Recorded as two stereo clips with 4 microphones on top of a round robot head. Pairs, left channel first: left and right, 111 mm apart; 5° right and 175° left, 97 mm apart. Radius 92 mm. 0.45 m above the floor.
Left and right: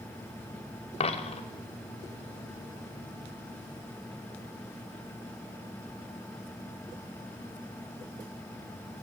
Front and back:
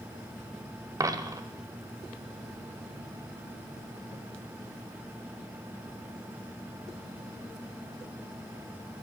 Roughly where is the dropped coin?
Behind left.